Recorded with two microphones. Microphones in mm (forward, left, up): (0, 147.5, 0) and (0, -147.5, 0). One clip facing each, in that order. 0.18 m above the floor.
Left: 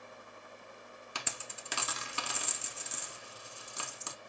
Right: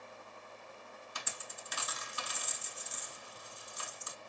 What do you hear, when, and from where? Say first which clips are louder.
1.1 s a dropped coin: left 6 dB; 70° left (ahead or behind), 0.6 m